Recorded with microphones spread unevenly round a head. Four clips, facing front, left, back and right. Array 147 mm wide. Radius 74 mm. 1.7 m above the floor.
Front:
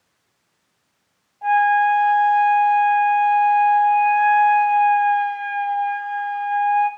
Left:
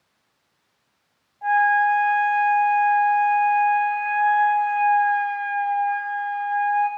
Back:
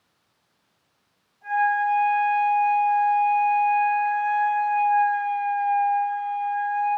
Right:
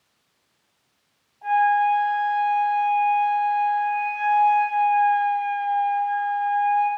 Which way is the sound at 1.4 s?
35° left.